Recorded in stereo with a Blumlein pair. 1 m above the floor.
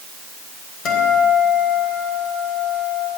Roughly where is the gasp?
No gasp in this recording.